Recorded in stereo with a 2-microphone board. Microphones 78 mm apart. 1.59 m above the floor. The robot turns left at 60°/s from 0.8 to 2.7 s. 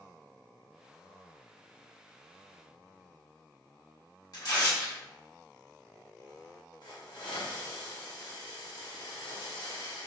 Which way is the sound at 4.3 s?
50° left (ahead or behind).